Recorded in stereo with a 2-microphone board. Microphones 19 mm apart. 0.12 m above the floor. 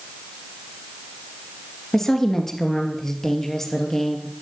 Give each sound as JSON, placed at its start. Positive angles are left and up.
{"t": 1.9, "sound": "a woman speaking", "side_deg": 20, "distance_m": 2.5}